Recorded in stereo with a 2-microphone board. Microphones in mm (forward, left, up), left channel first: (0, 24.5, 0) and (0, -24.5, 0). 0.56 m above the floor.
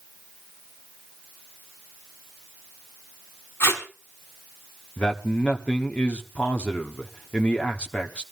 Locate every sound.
3.6 s tape being pulled: 70° left (ahead or behind), 3.5 m
5.0 s a man speaking: 30° left (ahead or behind), 1.1 m